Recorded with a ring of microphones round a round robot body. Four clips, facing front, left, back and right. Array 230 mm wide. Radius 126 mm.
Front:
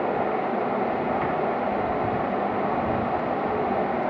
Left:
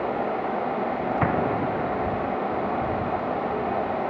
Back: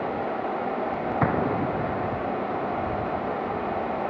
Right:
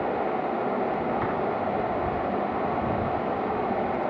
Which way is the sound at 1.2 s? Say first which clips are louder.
Left 3 dB, even; 145° left.